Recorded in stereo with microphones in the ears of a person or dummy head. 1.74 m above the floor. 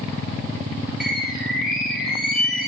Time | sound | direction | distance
1.0 | a bird | centre (ahead or behind) | 2 m